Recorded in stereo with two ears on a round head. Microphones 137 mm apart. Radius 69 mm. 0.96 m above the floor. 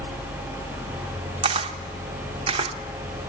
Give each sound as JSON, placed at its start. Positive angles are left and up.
{"t": 1.4, "sound": "a camera shutter", "side_deg": -35, "distance_m": 0.9}